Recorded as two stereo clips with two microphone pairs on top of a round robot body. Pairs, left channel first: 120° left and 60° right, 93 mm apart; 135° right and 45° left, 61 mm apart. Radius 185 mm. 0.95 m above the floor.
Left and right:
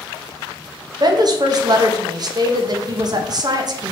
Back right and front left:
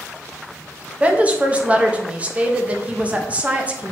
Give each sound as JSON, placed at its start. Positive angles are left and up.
{"t": 1.0, "sound": "a woman speaking", "azimuth_deg": -20, "distance_m": 1.1}